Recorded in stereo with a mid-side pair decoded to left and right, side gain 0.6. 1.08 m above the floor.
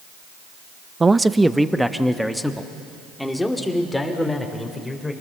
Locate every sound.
1.0 s a man speaking: 20° right, 0.6 m; by 5.1 s 10° left, 3.5 m